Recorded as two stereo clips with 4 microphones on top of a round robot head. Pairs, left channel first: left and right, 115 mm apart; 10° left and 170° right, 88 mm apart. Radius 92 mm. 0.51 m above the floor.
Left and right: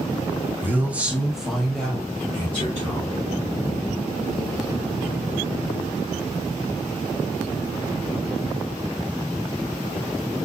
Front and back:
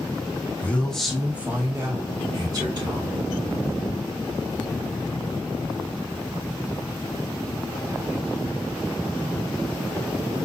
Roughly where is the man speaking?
Ahead right.